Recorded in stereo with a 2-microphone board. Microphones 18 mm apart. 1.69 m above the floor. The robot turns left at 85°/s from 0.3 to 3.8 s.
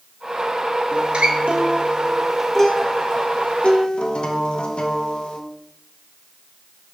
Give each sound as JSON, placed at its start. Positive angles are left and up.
{"t": 0.9, "sound": "a guitar", "azimuth_deg": -55, "distance_m": 0.9}